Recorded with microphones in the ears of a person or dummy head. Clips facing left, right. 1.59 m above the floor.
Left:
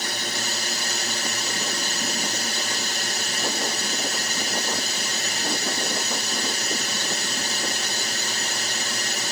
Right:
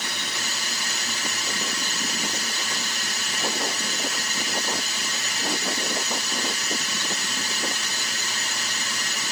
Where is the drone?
30° left (ahead or behind).